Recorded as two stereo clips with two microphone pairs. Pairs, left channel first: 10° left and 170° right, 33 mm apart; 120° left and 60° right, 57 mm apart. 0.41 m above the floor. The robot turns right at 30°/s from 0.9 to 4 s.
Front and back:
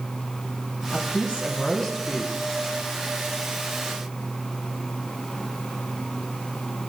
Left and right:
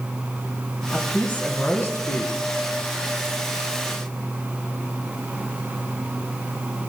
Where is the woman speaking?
50° left, 4.5 m; by 2.3 s 90° left, 4.5 m.